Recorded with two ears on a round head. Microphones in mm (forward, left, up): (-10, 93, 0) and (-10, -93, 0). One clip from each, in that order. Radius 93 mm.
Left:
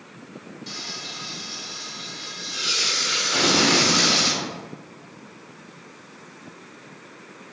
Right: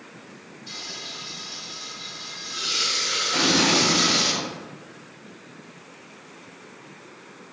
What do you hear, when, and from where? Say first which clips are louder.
0.7 s frying: left 2 dB; 75° left (ahead or behind), 1.7 m
3.3 s an explosion: left 1 dB; 75° left (ahead or behind), 1.6 m